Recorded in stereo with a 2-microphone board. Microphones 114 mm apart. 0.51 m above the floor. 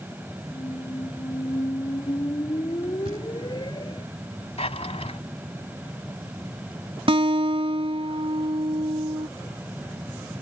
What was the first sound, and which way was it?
A squeak, 45° left (ahead or behind).